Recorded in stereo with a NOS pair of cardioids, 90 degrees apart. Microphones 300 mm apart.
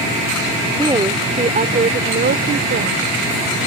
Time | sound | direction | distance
0.8 | a woman speaking | 15° right | ?